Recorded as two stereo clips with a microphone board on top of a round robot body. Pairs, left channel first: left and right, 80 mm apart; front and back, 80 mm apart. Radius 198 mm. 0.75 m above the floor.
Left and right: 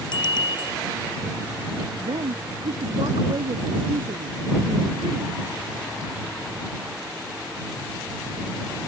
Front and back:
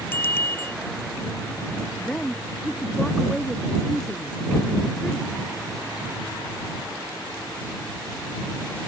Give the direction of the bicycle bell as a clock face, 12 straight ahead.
10 o'clock.